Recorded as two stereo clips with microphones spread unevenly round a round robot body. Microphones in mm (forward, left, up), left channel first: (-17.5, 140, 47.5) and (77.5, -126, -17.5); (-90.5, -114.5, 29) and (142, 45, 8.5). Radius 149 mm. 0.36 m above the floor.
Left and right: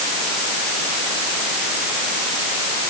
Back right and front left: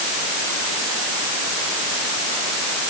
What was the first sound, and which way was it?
Only background noise.